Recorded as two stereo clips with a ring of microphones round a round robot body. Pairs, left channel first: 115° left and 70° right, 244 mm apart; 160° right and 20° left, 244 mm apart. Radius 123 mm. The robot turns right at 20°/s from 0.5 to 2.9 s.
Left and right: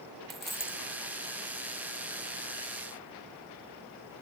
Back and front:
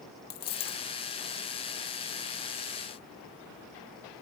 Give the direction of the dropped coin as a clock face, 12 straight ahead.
5 o'clock.